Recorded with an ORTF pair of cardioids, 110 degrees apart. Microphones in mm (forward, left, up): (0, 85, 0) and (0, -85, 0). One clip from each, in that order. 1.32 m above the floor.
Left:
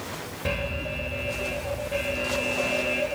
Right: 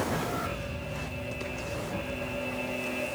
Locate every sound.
0.5 s an alarm: 70° left, 2.5 m